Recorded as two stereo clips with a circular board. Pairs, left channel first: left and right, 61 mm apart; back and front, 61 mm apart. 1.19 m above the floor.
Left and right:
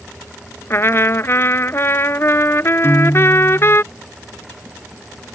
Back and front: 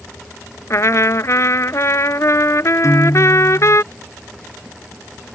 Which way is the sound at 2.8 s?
140° left.